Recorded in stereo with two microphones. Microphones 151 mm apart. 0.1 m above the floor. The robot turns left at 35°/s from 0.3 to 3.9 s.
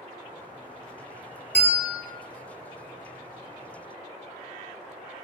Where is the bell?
10° left (ahead or behind), 1.3 m; by 2.0 s 5° left (ahead or behind), 1.3 m.